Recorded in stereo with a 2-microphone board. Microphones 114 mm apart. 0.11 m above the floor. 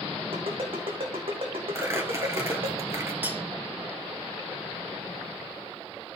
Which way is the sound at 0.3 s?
55° right (ahead or behind).